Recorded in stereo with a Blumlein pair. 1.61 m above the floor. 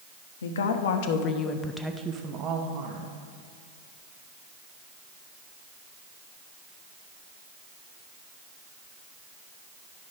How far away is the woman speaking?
About 0.9 m.